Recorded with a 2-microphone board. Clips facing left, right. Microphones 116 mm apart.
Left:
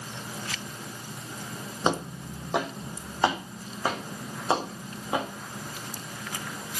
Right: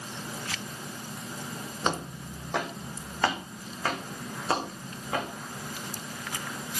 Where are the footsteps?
20° left (ahead or behind), 2 m; by 5.3 s 15° left (ahead or behind), 4.5 m.